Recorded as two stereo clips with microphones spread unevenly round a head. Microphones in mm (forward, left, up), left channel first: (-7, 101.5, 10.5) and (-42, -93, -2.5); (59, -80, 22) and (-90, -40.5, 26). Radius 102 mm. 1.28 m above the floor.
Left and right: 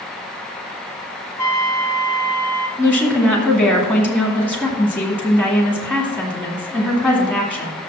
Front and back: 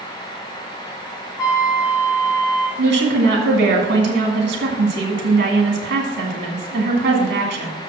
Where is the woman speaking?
175° left, 2.0 m.